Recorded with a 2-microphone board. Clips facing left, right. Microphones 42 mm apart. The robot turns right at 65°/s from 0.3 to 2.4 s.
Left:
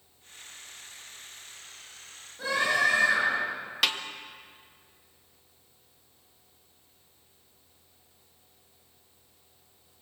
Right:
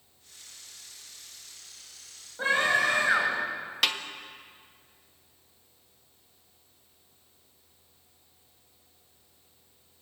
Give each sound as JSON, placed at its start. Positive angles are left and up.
{"t": 2.4, "sound": "a scream", "side_deg": -40, "distance_m": 8.5}
{"t": 3.8, "sound": "a snare drum", "side_deg": 0, "distance_m": 1.5}